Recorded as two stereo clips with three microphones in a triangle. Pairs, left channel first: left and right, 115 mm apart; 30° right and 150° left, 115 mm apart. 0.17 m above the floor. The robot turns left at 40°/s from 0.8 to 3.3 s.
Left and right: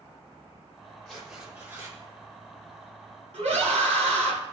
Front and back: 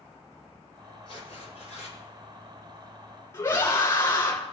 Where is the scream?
95° right, 7 m.